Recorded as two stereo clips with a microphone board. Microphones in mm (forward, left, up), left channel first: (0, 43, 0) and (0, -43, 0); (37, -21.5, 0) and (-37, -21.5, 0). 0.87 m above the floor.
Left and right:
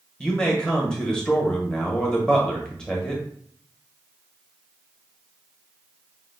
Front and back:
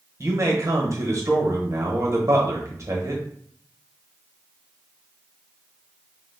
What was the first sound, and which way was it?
A man speaking, 170° left.